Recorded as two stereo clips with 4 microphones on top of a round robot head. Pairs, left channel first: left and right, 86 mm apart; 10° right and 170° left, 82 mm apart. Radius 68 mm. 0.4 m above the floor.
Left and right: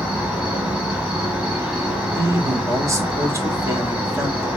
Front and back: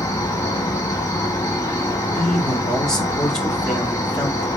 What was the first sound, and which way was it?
An insect, 20° right.